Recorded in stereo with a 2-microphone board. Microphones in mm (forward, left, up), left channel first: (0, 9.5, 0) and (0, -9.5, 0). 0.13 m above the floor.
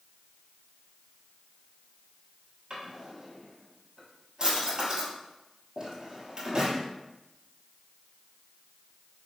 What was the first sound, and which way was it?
A drawer, 35° right (ahead or behind).